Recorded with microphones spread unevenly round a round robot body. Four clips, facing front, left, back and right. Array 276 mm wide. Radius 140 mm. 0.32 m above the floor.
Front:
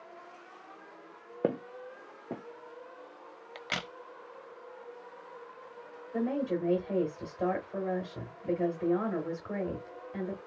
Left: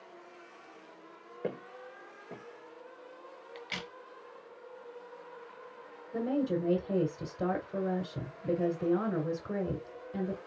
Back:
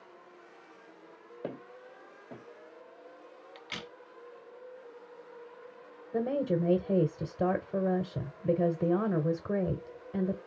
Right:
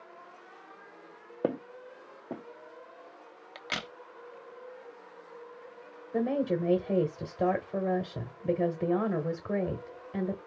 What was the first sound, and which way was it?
Footsteps, 35° right.